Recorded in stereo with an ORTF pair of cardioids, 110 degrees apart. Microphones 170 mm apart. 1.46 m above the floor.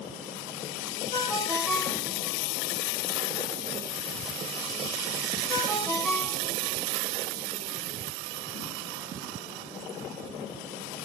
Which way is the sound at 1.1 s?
5° right.